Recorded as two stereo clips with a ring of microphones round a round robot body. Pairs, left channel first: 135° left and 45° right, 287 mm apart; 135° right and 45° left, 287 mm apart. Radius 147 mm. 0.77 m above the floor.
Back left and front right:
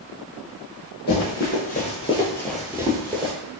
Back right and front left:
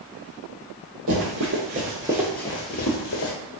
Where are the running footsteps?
85° left, 1.3 m; by 3.3 s 110° right, 1.1 m.